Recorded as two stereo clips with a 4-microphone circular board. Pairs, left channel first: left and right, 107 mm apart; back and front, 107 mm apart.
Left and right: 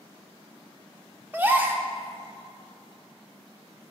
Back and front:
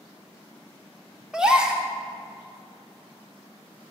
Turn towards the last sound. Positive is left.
turn(degrees=-65)